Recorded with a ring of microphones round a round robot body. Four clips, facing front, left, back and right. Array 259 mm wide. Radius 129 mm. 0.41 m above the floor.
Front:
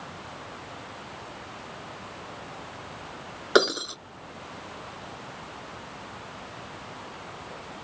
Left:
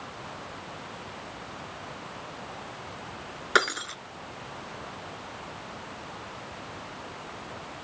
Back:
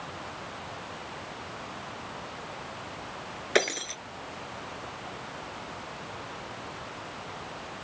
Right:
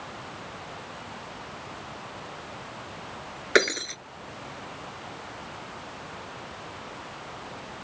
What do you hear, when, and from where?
3.5 s breaking glass: 25° right